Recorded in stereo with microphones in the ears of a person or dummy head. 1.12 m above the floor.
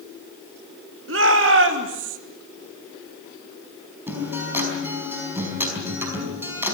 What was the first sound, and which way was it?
A shout, 65° right (ahead or behind).